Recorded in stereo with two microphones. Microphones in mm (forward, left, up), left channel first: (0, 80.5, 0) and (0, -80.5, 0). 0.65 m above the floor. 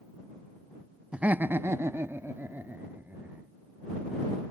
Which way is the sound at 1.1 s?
5° right (ahead or behind).